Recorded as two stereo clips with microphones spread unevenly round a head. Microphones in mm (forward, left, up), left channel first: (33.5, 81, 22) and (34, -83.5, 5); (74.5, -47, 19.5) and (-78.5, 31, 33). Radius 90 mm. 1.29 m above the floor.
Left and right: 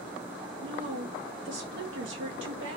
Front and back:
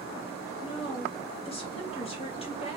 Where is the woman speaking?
85° right, 1.7 m.